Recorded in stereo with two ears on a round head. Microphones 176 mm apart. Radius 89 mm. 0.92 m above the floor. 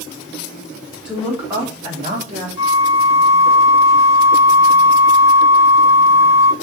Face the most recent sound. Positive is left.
turn(degrees=75)  # may be behind; listen again after turning